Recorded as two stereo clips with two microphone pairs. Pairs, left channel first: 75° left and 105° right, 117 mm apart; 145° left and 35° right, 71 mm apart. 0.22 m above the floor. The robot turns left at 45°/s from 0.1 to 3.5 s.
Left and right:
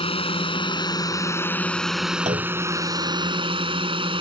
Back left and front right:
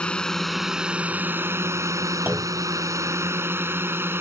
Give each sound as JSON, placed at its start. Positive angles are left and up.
{"t": 0.0, "sound": "a drone", "azimuth_deg": 70}
{"t": 2.3, "sound": "a clunk", "azimuth_deg": -100}